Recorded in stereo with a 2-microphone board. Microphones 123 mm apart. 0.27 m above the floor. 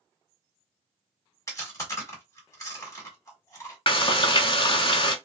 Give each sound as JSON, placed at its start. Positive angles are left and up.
{"t": 1.5, "sound": "chewing", "side_deg": 30, "distance_m": 1.4}
{"t": 3.9, "sound": "frying", "side_deg": 50, "distance_m": 0.5}